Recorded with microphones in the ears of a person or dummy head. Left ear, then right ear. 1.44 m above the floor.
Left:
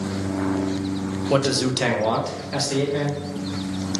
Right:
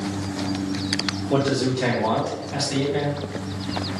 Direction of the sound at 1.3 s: 65° left (ahead or behind).